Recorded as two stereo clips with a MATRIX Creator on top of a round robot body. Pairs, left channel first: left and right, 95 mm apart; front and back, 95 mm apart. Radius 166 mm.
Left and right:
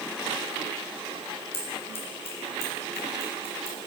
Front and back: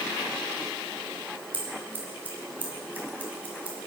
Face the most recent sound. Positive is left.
turn(degrees=105)